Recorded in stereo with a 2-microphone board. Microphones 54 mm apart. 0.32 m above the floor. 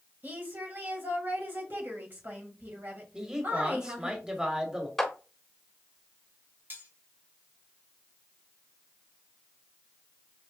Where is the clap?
5° left (ahead or behind), 0.9 m.